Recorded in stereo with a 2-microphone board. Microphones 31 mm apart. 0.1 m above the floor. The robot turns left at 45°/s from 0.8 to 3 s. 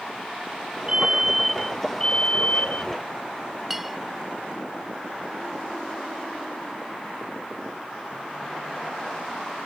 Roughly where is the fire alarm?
Behind right.